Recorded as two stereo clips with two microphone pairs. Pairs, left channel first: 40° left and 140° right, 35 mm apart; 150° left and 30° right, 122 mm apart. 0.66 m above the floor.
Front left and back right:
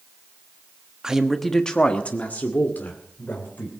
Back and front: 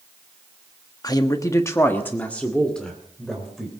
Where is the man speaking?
170° left, 1.2 m; by 3.7 s 60° left, 3.5 m.